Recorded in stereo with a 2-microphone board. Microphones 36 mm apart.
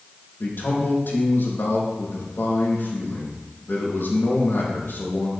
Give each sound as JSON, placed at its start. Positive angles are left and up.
{"t": 0.4, "sound": "a man speaking", "side_deg": 80, "distance_m": 5.0}